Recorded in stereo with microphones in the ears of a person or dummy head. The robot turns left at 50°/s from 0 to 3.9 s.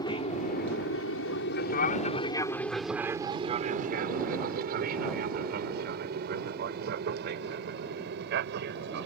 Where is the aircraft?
30° left (ahead or behind); by 9.1 s 75° right (ahead or behind).